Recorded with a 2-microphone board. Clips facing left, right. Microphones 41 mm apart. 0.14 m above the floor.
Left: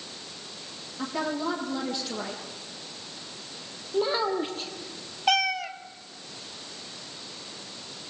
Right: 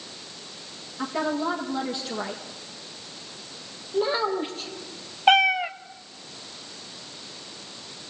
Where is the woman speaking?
5° right (ahead or behind), 4.5 m.